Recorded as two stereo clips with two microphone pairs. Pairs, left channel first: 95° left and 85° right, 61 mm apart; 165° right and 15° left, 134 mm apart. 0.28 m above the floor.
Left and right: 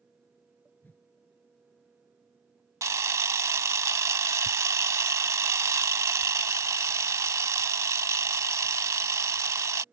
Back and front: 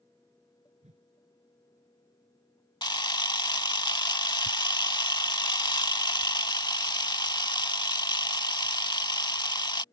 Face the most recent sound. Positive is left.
turn(degrees=-110)